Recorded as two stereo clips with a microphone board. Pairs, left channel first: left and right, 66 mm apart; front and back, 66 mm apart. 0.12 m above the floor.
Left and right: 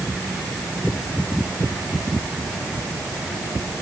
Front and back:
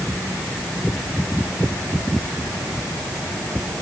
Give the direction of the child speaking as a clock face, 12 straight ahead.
No child speaking in this recording.